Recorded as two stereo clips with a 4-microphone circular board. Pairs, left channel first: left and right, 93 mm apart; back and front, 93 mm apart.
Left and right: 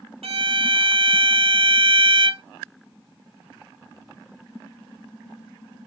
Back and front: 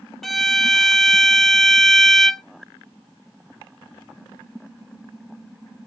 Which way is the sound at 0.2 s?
90° right.